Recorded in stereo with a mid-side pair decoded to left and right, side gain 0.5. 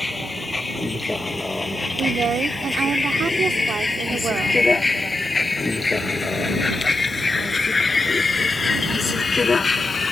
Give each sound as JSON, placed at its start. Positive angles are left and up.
{"t": 0.0, "sound": "a vehicle", "azimuth_deg": 15}
{"t": 2.0, "sound": "a woman speaking", "azimuth_deg": -45}